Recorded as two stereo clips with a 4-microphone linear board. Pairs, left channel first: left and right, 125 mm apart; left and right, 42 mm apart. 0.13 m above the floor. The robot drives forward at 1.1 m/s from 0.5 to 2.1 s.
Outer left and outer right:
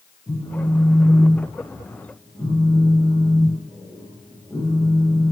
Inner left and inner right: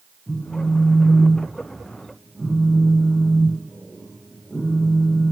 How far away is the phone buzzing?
About 6 m.